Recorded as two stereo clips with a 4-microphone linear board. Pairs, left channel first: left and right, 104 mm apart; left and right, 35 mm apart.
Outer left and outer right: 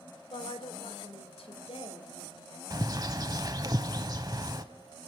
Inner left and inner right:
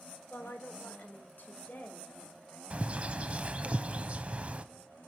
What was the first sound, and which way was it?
A woman speaking, 60° left (ahead or behind).